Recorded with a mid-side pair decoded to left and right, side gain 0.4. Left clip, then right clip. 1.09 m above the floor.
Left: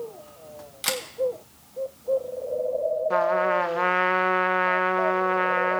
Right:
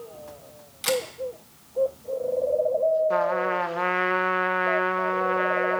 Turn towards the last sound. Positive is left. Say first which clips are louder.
# left 2 dB
turn(degrees=15)